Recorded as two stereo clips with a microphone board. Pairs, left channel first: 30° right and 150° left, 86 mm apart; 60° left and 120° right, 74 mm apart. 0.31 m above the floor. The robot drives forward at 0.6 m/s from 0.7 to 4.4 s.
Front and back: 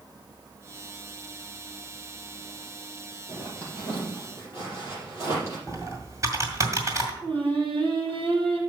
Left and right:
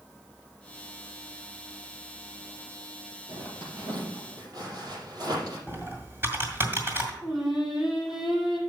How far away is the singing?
About 6.5 m.